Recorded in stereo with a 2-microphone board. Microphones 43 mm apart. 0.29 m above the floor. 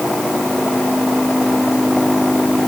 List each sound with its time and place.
Only background noise.